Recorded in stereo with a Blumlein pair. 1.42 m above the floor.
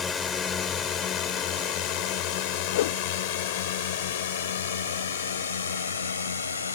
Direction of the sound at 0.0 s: 20° left.